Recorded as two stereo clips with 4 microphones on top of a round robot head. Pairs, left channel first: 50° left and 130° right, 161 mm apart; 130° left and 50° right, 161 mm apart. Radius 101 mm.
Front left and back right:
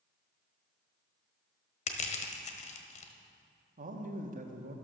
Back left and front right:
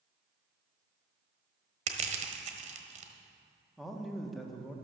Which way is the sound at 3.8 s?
135° right.